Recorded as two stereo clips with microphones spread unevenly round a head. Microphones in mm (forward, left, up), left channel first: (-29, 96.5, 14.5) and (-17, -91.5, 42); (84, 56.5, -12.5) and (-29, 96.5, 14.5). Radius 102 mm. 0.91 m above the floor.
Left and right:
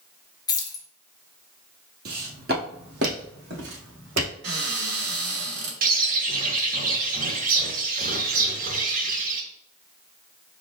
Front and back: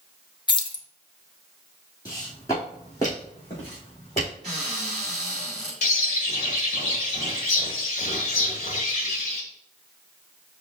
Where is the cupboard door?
110° right, 2 m.